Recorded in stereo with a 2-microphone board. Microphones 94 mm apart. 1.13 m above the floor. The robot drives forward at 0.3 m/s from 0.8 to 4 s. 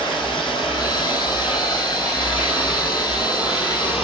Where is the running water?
60° left (ahead or behind), 5 m; by 4.0 s 75° left (ahead or behind), 5 m.